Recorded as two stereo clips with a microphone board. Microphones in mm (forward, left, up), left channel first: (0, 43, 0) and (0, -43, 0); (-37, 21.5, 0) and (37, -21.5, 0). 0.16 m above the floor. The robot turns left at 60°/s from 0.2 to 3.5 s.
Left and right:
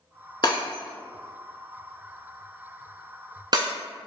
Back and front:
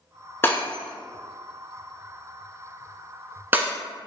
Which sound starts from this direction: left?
Breaking glass, at 0.4 s.